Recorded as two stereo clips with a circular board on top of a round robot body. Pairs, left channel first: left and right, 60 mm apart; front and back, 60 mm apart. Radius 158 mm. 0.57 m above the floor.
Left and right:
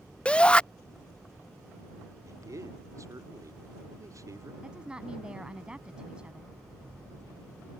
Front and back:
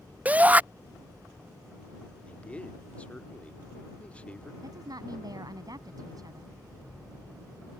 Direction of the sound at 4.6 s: 165° right.